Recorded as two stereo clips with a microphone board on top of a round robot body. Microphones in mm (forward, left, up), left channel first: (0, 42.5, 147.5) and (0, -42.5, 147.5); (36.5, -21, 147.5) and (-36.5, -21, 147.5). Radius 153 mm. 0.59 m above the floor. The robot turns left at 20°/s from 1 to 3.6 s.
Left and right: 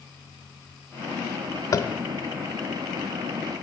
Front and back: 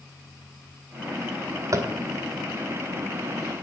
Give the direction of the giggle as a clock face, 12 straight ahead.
No giggle in this recording.